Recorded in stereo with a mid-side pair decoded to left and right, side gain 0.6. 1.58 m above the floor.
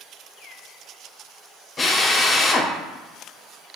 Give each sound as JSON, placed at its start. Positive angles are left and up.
{"t": 1.8, "sound": "a drill", "azimuth_deg": 25, "distance_m": 0.7}